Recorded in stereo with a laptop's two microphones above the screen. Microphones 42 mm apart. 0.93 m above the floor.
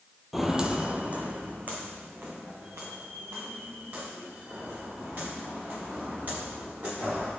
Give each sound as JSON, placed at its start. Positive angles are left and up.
{"t": 0.3, "sound": "footsteps", "side_deg": -5, "distance_m": 0.9}